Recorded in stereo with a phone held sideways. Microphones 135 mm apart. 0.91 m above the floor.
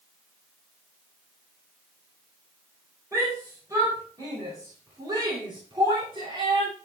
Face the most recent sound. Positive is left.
turn(degrees=-40)  # may be behind; listen again after turning